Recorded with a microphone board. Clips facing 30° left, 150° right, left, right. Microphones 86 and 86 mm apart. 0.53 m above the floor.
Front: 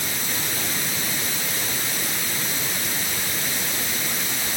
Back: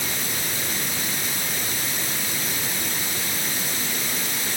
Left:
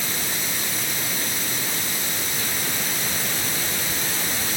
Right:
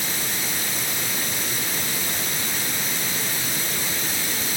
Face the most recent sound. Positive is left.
No sound to turn to.